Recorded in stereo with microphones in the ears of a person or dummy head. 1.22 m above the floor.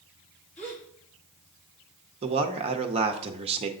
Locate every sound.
0.6 s a gasp: 10° left (ahead or behind), 2.5 m
2.2 s a man speaking: 35° right (ahead or behind), 0.9 m